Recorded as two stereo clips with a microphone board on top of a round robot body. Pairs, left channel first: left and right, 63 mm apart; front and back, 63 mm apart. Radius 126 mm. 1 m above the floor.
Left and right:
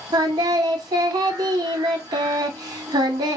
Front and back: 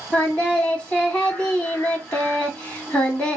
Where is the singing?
75° right, 0.6 m.